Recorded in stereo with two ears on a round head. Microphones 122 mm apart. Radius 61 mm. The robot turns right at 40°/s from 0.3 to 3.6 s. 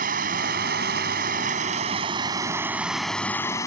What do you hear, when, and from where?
0.0 s running water: 110° right; by 3.7 s 25° left